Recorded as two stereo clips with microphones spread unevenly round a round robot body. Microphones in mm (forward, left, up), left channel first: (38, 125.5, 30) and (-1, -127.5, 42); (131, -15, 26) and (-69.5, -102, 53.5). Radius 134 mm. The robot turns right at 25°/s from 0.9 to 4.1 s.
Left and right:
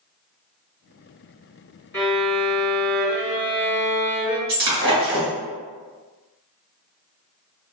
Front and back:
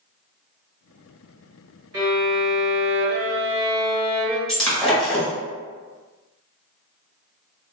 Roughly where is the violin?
Behind.